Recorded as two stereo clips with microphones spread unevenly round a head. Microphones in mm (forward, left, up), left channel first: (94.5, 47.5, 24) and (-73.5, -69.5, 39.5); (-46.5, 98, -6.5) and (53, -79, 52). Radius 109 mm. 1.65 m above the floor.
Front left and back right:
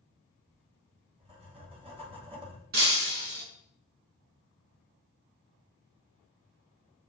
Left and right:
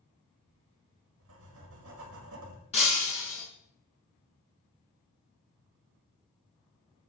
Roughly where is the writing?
Right.